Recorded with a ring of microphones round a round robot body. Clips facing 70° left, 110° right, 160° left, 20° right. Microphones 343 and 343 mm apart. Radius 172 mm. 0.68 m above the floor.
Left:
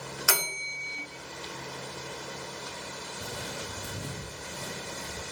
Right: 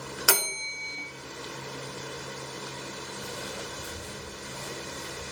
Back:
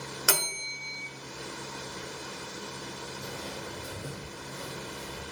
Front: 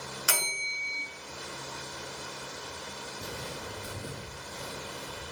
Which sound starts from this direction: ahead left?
Footsteps, at 3.2 s.